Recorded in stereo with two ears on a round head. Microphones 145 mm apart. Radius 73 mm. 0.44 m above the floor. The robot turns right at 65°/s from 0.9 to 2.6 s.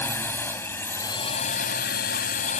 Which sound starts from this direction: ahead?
A drone, at 0.0 s.